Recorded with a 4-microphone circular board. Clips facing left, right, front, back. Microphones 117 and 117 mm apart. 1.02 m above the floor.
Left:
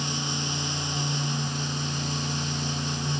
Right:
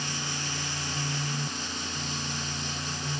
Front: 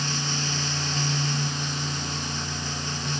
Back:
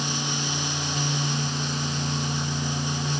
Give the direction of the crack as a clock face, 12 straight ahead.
No crack in this recording.